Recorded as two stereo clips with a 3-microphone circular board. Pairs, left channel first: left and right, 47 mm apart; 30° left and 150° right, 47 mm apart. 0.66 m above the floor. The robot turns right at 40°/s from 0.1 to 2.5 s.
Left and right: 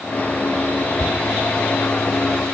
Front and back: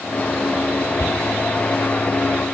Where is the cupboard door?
70° left, 1.9 m; by 1.2 s 75° left, 1.9 m.